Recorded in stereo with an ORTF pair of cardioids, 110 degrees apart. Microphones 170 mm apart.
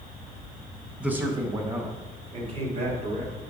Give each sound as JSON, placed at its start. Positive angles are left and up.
{"t": 1.0, "sound": "a man speaking", "azimuth_deg": -5, "distance_m": 1.7}